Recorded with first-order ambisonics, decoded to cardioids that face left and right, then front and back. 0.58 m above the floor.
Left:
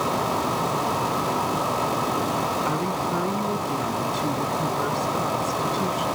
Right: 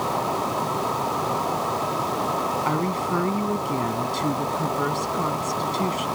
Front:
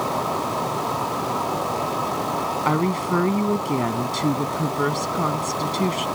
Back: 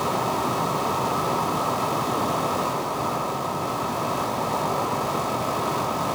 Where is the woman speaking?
10° right.